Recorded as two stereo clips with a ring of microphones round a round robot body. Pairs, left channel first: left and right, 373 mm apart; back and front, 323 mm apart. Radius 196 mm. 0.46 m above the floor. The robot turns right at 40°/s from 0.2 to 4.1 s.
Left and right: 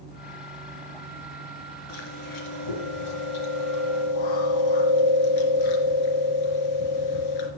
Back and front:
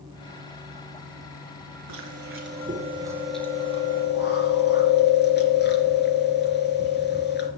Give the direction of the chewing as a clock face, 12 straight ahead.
11 o'clock.